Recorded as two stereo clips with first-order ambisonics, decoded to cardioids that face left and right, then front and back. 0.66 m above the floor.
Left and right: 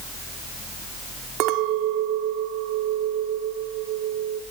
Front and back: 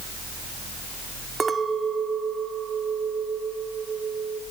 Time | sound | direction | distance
1.4 | a clink | 110° right | 0.8 m